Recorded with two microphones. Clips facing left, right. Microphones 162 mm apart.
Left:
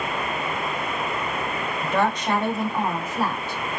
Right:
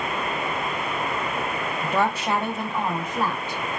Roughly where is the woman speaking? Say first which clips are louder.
Left 1 dB; centre.